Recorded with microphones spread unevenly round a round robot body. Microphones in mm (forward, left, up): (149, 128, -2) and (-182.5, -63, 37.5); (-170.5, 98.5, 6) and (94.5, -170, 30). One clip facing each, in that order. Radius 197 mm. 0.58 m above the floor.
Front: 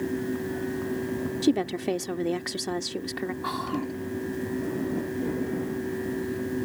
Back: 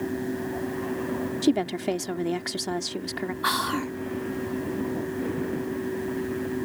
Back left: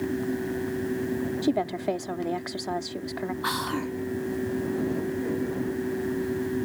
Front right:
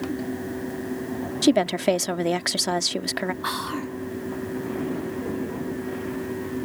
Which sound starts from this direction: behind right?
Whispering, at 3.4 s.